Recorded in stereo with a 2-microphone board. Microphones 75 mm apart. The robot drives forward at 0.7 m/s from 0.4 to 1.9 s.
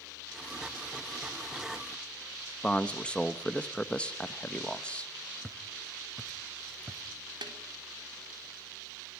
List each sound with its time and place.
2.6 s a man speaking: 15° left (ahead or behind), 1.1 m
5.4 s footsteps: 5° right (ahead or behind), 1.3 m; by 7.0 s 20° right (ahead or behind), 1.3 m
7.4 s a snare drum: 85° right, 3.5 m